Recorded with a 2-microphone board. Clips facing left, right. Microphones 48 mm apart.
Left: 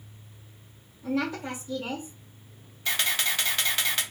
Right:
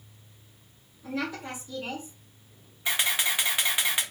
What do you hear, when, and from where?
1.0 s a woman speaking: 5° left (ahead or behind), 0.7 m
2.9 s a camera shutter: 15° right (ahead or behind), 0.6 m